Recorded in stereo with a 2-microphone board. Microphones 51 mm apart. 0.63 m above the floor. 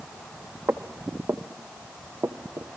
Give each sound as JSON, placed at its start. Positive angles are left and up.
{"t": 0.7, "sound": "footsteps", "side_deg": -65, "distance_m": 1.9}